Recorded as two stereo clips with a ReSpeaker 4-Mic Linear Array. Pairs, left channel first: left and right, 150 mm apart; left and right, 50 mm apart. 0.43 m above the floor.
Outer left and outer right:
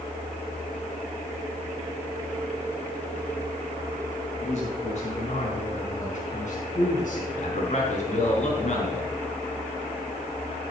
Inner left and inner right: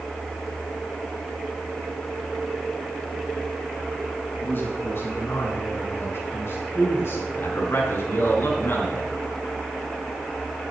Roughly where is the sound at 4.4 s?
Left.